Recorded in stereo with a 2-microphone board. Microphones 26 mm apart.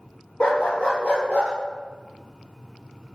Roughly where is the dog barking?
Left.